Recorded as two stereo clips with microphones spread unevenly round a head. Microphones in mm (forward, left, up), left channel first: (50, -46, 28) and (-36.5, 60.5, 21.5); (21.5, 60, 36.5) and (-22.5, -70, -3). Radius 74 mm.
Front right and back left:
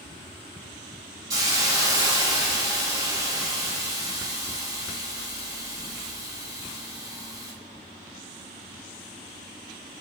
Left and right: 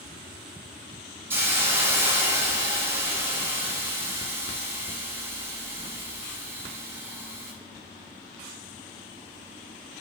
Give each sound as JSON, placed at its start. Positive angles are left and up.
{"t": 1.3, "sound": "a hiss", "azimuth_deg": 155, "distance_m": 0.6}